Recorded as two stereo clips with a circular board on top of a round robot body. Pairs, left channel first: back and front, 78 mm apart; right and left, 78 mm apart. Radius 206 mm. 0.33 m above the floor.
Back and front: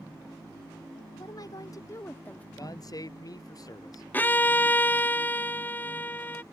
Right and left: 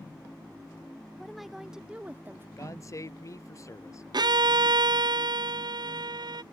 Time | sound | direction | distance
1.1 | a woman speaking | 175° right | ?
2.6 | a man speaking | 140° right | ?
4.1 | a violin | 115° left | ?